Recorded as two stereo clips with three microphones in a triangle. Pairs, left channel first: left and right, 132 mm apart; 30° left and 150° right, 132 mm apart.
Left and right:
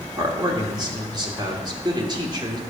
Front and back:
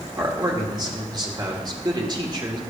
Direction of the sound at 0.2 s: 120° right.